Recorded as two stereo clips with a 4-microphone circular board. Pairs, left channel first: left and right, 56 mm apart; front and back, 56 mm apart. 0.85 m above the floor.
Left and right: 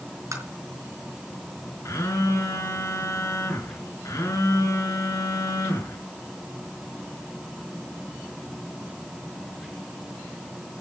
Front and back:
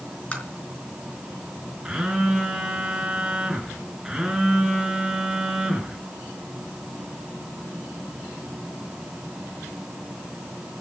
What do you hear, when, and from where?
0.3 s tapping: 65° right, 5 m
1.9 s a phone buzzing: 105° left, 5 m